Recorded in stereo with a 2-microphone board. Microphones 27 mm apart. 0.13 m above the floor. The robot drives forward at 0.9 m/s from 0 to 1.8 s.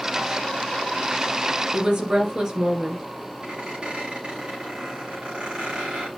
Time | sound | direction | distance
1.7 | a woman speaking | 30° right (ahead or behind) | 2.5 m
3.4 | a squeak | 45° right (ahead or behind) | 4.5 m